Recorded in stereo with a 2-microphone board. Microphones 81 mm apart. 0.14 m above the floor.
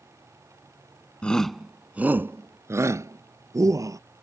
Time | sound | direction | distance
1.2 | a shout | 15° left (ahead or behind) | ?